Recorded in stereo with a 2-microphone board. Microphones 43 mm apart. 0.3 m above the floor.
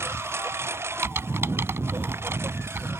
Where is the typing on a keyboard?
75° right (ahead or behind).